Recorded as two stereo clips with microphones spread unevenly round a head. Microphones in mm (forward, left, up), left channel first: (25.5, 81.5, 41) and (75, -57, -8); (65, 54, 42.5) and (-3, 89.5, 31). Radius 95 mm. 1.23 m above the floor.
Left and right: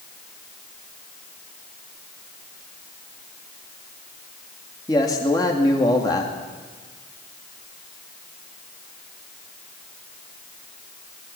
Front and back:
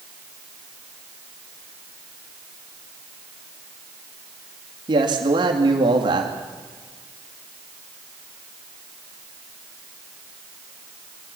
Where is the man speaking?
175° right, 2.5 m.